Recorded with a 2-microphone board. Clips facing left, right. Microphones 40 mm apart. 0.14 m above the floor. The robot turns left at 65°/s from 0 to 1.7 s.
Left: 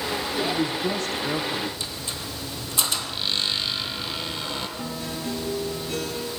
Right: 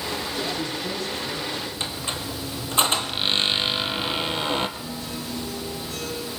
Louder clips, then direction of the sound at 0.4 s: Left 4 dB; 160° left.